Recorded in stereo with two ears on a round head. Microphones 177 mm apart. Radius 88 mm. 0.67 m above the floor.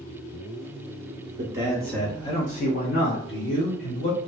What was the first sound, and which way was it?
A man speaking, 25° right (ahead or behind).